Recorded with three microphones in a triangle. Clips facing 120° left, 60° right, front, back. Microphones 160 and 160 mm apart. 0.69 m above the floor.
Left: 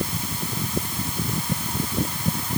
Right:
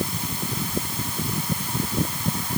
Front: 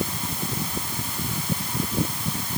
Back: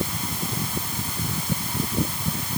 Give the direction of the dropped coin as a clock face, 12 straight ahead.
I don't hear a dropped coin.